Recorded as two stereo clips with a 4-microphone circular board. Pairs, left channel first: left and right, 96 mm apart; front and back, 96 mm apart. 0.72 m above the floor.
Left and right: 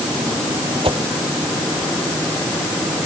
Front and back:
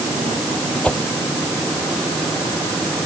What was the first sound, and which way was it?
A whoosh, 75° right.